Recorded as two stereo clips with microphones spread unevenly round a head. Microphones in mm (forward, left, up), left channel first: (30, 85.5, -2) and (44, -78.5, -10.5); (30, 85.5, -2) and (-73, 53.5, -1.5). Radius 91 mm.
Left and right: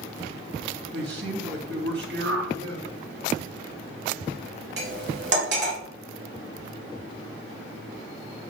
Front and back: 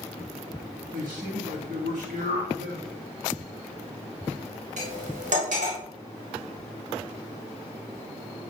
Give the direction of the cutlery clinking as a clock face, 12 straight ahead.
4 o'clock.